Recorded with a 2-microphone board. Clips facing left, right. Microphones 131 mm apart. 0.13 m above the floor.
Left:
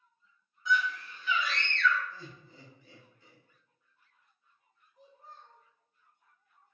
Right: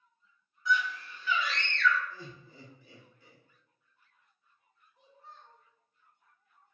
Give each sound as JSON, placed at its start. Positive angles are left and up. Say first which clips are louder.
{"t": 0.7, "sound": "a scream", "louder": "even", "side_deg": 25, "distance_m": 1.6}
{"t": 2.1, "sound": "laughter", "louder": "right 1 dB", "side_deg": -10, "distance_m": 1.1}
{"t": 5.0, "sound": "a child speaking", "louder": "left 1 dB", "side_deg": 40, "distance_m": 0.9}